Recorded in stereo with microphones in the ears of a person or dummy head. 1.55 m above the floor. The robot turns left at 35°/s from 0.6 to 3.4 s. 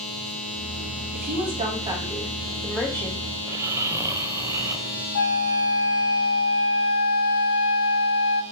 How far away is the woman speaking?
About 4.5 m.